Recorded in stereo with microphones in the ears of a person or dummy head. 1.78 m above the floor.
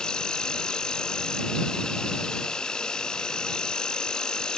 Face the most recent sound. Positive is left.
turn(degrees=0)  # may be behind; listen again after turning